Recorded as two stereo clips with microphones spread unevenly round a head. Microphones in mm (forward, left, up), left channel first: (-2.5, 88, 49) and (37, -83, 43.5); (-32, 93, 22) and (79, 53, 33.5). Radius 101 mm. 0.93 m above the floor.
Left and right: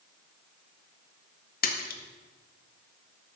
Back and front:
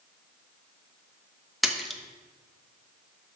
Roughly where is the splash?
Left.